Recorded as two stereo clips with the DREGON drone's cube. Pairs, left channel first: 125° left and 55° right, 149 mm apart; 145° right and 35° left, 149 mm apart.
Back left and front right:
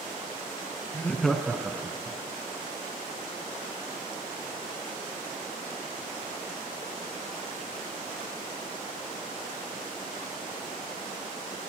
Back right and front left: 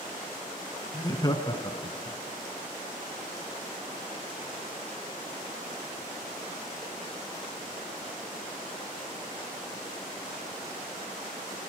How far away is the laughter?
About 1.6 m.